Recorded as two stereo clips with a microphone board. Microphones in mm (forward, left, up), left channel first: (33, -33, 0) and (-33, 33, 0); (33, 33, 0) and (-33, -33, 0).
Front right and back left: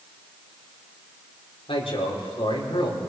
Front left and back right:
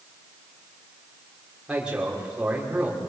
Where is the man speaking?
55° right, 5 m.